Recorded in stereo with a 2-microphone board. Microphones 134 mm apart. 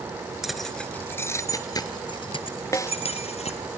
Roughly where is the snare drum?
Left.